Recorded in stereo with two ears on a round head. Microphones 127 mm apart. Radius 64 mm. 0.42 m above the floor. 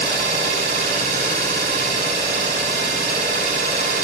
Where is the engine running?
60° right (ahead or behind), 2.5 m.